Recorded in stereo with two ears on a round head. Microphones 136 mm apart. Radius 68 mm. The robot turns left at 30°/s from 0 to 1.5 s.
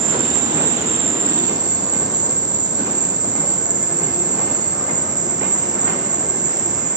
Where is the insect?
105° right, 1.2 m; by 7.0 s 150° right, 1.2 m.